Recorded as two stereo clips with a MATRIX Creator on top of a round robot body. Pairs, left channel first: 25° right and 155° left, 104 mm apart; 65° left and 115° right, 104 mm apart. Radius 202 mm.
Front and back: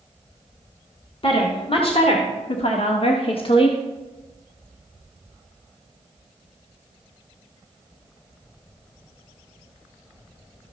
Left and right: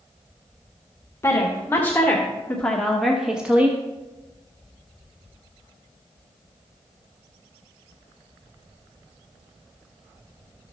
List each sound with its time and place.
1.2 s a woman speaking: 5° left, 1.8 m; by 3.8 s 45° right, 1.0 m